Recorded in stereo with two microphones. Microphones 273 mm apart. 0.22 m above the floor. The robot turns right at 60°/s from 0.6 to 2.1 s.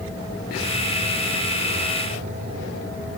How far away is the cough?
No cough in this recording.